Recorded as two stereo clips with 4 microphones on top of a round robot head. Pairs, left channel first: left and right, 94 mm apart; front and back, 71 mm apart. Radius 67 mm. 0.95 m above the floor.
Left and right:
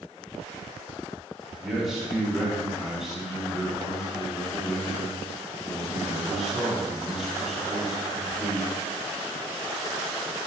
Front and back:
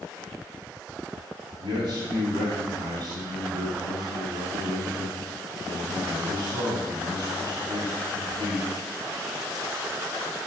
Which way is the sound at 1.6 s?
175° right.